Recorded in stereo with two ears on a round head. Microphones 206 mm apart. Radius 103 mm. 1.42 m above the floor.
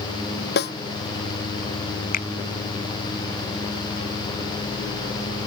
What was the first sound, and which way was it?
A snare drum, 45° left (ahead or behind).